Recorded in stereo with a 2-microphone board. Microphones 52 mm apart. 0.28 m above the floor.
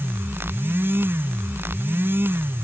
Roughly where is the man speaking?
I don't hear a man speaking.